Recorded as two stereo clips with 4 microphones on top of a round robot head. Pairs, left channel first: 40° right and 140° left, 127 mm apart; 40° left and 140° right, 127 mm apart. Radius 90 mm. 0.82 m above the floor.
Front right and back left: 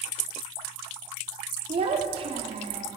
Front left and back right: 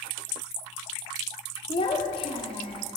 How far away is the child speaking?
About 1.1 m.